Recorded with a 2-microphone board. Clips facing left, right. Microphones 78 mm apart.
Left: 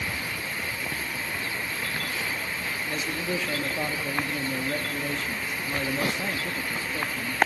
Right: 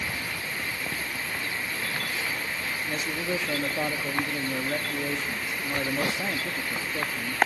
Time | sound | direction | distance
2.9 | a man speaking | 10° right (ahead or behind) | 0.8 m